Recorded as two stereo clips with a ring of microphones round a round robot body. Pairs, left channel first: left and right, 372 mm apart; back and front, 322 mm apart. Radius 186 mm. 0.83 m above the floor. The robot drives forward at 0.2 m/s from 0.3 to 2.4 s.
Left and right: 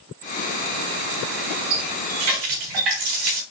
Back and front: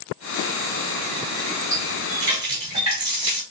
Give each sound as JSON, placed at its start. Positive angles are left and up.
{"t": 1.7, "sound": "a running tap", "azimuth_deg": -105, "distance_m": 3.0}